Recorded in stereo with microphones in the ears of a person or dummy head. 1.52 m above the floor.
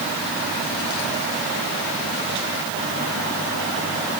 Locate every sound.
Only background noise.